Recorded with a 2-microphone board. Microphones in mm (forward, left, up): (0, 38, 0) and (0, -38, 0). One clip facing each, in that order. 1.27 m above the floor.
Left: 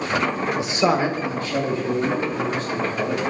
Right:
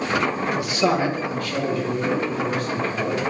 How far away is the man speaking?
About 0.7 m.